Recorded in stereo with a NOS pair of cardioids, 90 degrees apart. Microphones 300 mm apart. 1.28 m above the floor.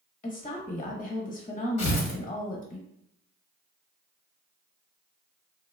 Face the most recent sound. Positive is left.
turn(degrees=60)